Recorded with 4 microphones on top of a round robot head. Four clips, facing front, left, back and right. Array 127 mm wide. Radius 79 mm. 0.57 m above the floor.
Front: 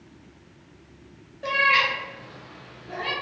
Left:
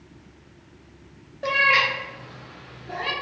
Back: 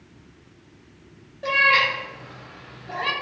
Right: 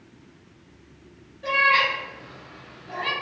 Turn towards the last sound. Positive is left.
turn(degrees=175)